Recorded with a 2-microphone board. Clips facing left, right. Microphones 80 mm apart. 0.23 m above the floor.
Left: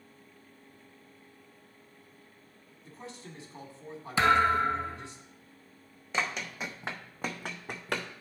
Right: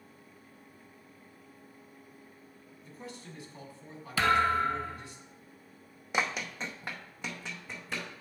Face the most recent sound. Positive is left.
turn(degrees=70)  # may be behind; listen again after turning